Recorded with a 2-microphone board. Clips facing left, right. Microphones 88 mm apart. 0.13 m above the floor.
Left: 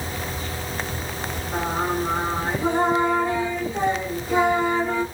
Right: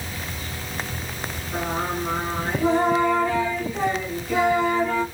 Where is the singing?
25° left (ahead or behind), 1.4 m.